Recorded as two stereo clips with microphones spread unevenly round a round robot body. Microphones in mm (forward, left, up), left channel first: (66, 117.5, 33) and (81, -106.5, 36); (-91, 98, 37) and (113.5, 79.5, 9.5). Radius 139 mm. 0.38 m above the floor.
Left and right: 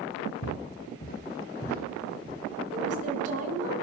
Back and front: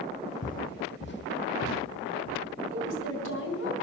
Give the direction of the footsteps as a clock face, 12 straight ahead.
8 o'clock.